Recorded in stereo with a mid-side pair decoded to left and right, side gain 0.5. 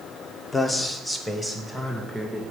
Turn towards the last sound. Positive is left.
turn(degrees=5)